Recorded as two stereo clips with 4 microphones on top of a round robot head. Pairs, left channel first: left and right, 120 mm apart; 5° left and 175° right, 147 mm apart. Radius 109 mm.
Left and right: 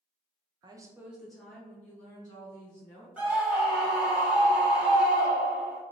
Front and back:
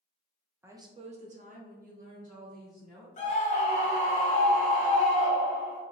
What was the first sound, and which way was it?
A woman speaking, 110° right.